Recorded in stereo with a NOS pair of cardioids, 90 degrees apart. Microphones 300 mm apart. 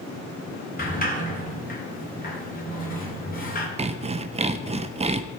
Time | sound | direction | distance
0.8 | a sliding door | 30° left | 3 m
3.8 | sawing | 20° right | 0.9 m